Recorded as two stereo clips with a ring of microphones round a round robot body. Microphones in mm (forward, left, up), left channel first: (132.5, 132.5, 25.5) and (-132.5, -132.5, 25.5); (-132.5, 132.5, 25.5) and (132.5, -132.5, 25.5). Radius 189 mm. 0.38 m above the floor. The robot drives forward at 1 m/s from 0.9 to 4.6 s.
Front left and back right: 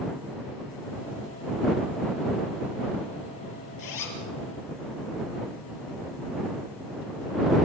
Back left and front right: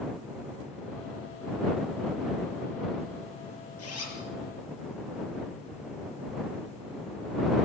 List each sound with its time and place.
3.8 s a zipper: 80° left, 6.5 m; by 4.2 s 85° left, 6.5 m